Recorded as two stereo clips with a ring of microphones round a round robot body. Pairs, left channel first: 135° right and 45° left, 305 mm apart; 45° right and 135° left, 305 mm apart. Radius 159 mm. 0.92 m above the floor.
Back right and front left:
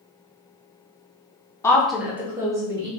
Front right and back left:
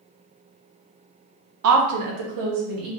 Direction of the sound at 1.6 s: 145° left.